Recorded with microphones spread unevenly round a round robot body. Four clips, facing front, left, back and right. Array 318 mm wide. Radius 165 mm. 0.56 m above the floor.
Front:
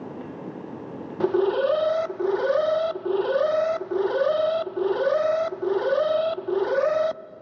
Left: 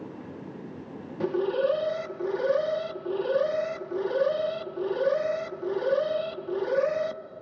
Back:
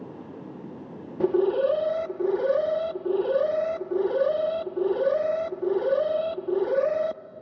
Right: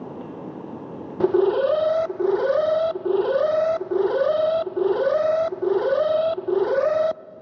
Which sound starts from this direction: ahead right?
An alarm, at 1.2 s.